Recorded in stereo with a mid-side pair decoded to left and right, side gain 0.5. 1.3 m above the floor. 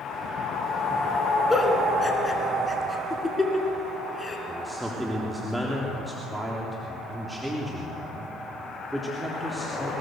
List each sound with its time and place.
1.5 s a giggle: 15° left, 4.5 m
4.5 s a man speaking: 10° right, 3.5 m